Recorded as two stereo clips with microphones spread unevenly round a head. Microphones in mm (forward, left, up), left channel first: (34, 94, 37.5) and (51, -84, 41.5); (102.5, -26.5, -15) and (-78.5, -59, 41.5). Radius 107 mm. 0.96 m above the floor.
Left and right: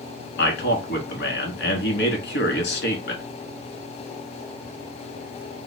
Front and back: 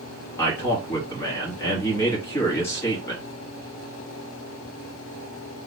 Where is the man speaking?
85° left, 1.5 m.